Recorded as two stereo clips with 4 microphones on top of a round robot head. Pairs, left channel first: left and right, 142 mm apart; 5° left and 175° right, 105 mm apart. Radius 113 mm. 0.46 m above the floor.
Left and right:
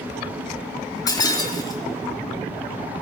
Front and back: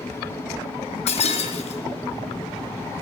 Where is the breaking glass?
25° left, 3.5 m.